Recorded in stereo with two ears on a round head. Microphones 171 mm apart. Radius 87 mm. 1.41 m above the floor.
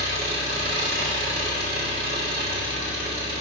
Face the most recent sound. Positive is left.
turn(degrees=-50)  # may be behind; listen again after turning